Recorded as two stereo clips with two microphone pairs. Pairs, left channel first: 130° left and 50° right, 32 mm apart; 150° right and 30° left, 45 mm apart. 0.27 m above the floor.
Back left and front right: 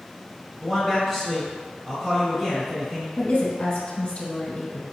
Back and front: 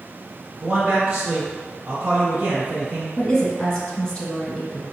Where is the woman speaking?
150° left, 1.0 m.